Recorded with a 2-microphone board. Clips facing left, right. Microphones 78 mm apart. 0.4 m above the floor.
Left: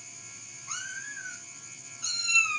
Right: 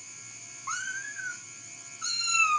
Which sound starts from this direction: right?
A cat meowing, at 0.7 s.